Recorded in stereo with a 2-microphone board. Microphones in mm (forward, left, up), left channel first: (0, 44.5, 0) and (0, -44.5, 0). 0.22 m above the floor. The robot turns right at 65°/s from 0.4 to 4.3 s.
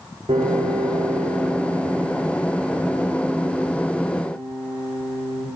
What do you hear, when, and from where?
0.3 s a piano: 85° right, 9 m; by 5.5 s 170° left, 9 m